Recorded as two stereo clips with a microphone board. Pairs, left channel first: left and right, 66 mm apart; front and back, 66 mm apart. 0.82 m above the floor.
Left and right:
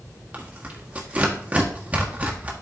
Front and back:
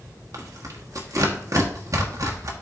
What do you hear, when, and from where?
0.3 s tearing paper: 155° right, 1.2 m